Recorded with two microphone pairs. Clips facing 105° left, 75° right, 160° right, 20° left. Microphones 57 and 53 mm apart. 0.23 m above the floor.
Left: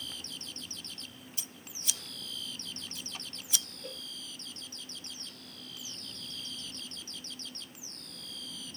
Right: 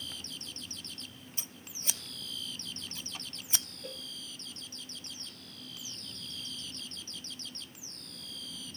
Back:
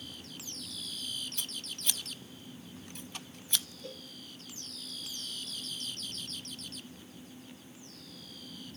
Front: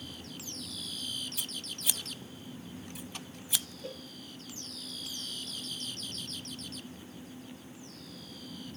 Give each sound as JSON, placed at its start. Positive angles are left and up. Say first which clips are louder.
{"t": 1.4, "sound": "scissors", "louder": "even, front 1 dB", "azimuth_deg": -60, "distance_m": 0.8}
{"t": 3.8, "sound": "a cowbell", "louder": "even, front 3 dB", "azimuth_deg": 5, "distance_m": 1.2}